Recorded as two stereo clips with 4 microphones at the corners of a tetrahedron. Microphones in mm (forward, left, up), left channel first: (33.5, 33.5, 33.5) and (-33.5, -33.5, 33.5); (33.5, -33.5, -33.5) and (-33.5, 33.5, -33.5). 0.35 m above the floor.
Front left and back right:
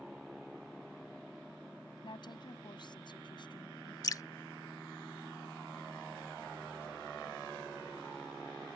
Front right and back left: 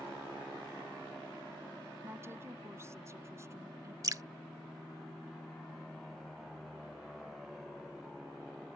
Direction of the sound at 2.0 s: 75° left.